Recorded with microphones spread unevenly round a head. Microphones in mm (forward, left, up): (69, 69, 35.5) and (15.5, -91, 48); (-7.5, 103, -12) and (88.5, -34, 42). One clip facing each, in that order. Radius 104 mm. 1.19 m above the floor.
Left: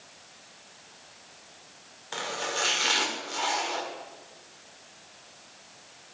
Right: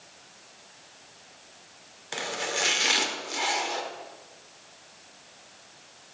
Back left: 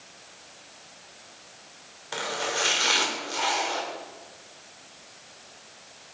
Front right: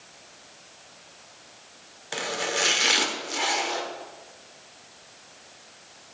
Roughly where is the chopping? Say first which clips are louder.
Right 1 dB, front right 1 dB; ahead right.